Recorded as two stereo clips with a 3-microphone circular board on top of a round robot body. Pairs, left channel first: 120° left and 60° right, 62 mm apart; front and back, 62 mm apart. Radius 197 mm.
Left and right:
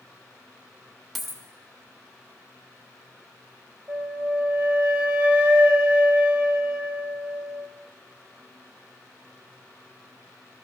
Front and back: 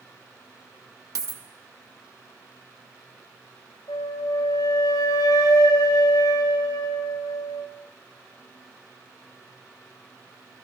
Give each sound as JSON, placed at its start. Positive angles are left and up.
{"t": 1.1, "sound": "a dropped coin", "azimuth_deg": -150, "distance_m": 1.4}
{"t": 3.9, "sound": "a flute", "azimuth_deg": 10, "distance_m": 1.1}